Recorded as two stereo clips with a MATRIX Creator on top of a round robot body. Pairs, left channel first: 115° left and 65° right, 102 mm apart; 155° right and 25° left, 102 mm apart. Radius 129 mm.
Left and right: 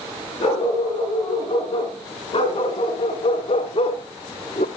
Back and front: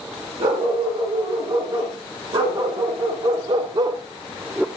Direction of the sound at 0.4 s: 70° left.